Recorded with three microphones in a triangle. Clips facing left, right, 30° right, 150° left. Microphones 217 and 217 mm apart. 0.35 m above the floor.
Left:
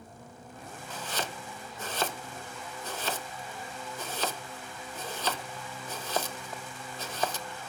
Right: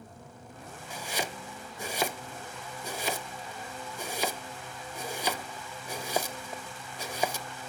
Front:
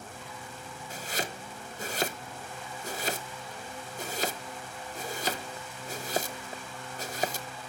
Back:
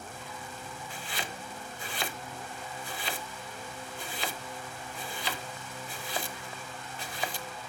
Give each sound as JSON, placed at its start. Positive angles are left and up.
{"t": 0.9, "sound": "chopping", "azimuth_deg": -15, "distance_m": 0.8}